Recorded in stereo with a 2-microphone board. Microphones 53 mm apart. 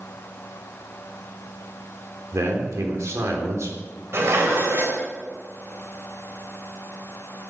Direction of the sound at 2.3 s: 70° right (ahead or behind).